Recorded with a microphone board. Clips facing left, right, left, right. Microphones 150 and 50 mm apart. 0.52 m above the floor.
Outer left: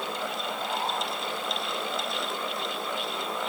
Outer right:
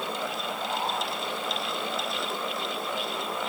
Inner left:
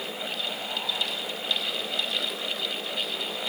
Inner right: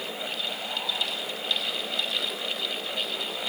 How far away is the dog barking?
I don't hear a dog barking.